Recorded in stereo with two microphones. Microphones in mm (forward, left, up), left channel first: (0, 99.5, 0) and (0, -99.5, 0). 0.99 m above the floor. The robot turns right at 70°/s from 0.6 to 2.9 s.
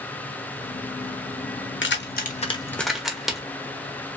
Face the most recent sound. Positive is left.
turn(degrees=0)  # may be behind; listen again after turning